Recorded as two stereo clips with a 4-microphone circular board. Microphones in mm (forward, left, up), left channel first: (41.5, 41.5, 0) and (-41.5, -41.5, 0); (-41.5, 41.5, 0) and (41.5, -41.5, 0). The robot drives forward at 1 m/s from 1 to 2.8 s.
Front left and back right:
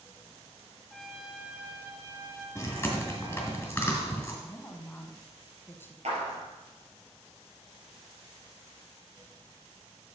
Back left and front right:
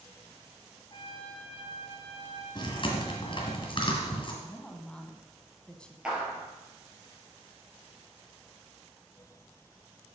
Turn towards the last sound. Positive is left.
turn(degrees=-125)